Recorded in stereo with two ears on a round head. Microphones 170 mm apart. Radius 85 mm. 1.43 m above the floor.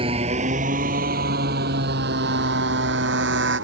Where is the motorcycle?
30° right (ahead or behind); by 3.6 s 65° right (ahead or behind).